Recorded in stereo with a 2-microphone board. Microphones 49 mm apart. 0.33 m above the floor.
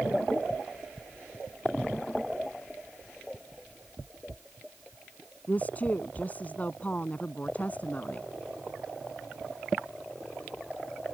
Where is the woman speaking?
30° left (ahead or behind).